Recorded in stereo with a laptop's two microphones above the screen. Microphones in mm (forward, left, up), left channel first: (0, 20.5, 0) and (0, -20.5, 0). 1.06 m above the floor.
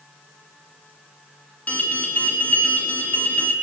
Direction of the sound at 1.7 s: 35° left (ahead or behind).